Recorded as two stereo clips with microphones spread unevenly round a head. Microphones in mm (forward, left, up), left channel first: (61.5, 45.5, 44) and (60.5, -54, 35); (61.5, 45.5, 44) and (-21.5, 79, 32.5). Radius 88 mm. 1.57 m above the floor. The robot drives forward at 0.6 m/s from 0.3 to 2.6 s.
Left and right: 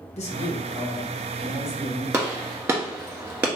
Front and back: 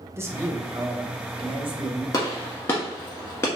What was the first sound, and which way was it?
A man speaking, 95° left.